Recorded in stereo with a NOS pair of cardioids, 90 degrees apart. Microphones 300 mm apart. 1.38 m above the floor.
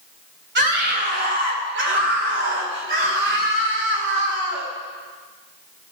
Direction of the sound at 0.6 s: 40° right.